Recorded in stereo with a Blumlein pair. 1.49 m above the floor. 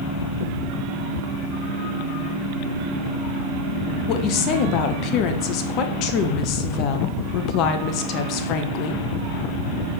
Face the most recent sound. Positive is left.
turn(degrees=40)